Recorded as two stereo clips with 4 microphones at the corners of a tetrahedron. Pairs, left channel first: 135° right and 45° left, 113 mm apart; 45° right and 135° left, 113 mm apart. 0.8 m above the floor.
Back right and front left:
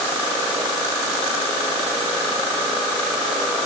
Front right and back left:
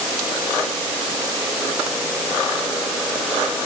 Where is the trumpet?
No trumpet in this recording.